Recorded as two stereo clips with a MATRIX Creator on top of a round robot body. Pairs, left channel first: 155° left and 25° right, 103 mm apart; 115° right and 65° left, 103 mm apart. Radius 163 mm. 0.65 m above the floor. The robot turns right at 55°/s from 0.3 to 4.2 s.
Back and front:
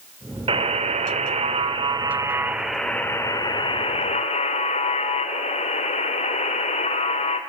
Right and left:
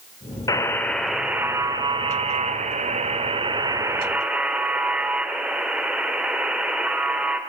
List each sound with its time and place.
0.5 s a buzzer: 55° right, 2 m; by 7.4 s 150° left, 2 m